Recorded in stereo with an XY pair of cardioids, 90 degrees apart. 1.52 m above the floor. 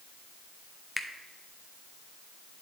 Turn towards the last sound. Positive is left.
turn(degrees=10)